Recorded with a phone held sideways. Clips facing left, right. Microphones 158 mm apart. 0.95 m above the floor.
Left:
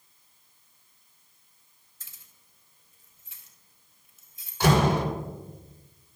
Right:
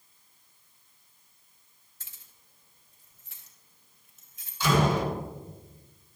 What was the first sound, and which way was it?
Keys jangling, 80° right.